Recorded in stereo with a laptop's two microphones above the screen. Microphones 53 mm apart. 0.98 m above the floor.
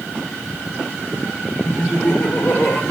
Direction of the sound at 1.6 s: 40° left (ahead or behind).